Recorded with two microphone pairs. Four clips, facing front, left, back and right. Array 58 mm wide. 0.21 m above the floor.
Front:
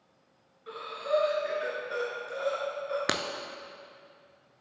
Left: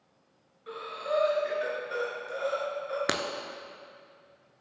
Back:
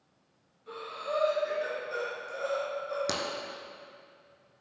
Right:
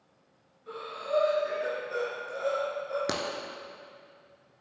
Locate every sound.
0.7 s breathing: 55° left, 2.5 m
3.1 s breaking glass: 50° left, 0.6 m